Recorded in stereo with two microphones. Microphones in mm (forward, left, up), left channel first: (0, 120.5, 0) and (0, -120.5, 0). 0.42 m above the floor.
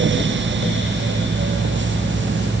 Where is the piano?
No piano in this recording.